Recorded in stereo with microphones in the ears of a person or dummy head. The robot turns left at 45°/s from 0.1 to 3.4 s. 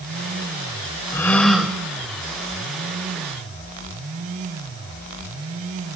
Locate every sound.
1.1 s a gasp: 15° left (ahead or behind), 1.3 m; by 1.8 s 10° right (ahead or behind), 1.3 m